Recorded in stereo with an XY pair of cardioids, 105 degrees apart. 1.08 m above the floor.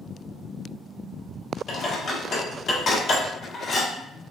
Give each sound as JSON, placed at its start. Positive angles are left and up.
{"t": 1.7, "sound": "dishes clattering", "azimuth_deg": 55, "distance_m": 1.6}